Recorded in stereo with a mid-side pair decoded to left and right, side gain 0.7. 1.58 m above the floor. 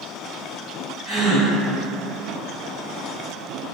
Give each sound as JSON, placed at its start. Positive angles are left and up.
{"t": 1.1, "sound": "a gasp", "azimuth_deg": 5, "distance_m": 1.5}